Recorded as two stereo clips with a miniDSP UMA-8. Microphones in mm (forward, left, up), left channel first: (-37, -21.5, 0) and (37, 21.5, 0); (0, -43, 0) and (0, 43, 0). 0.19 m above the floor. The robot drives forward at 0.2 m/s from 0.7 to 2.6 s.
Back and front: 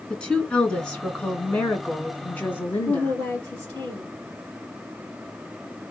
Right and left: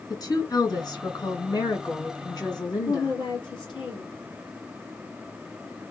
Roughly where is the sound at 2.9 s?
Right.